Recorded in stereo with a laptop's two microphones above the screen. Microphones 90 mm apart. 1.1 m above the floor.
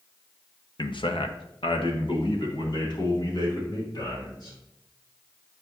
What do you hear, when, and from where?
0.8 s a man speaking: 55° left (ahead or behind), 0.8 m; by 4.6 s 50° left (ahead or behind), 3 m